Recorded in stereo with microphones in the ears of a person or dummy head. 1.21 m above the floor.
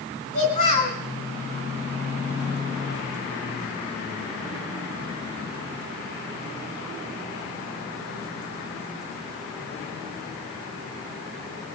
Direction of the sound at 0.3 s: 40° left (ahead or behind).